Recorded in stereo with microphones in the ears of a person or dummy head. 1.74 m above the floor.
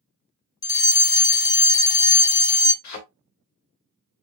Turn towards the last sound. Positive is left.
turn(degrees=55)  # may be behind; listen again after turning